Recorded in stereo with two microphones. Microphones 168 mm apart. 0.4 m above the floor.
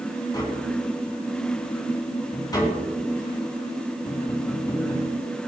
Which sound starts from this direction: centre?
Tapping, at 0.3 s.